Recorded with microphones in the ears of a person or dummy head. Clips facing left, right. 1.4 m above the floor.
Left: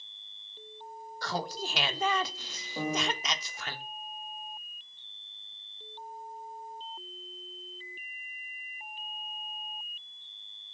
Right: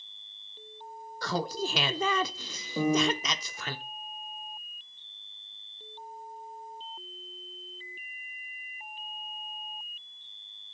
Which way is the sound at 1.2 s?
75° right (ahead or behind).